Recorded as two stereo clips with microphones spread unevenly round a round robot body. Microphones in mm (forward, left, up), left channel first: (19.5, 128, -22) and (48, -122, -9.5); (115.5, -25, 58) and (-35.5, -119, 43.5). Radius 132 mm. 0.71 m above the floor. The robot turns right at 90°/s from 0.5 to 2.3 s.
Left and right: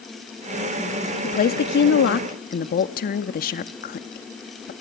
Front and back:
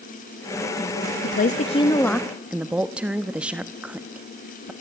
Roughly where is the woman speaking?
Ahead left.